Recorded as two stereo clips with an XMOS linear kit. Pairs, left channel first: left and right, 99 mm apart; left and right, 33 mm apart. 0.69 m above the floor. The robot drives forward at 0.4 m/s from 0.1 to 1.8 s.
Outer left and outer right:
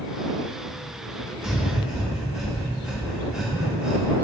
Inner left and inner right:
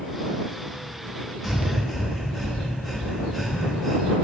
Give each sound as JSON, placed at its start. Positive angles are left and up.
{"t": 1.4, "sound": "breathing", "side_deg": -5, "distance_m": 1.0}